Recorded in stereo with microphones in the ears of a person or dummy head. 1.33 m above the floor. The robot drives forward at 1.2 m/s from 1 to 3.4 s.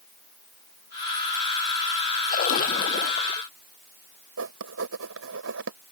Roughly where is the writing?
Right.